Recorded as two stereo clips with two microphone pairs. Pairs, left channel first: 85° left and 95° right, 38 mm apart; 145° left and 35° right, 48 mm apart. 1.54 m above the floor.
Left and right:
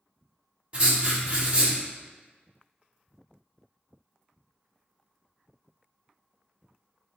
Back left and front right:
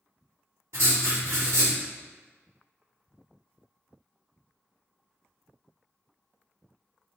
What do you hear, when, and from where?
0.7 s writing: 40° right, 0.9 m